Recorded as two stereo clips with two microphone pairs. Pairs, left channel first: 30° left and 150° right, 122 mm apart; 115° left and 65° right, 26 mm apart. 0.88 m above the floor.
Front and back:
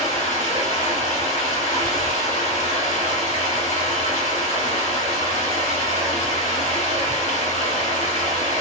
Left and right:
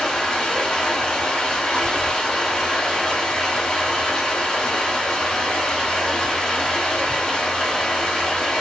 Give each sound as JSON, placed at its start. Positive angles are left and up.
{"t": 0.0, "sound": "running water", "azimuth_deg": 55, "distance_m": 1.2}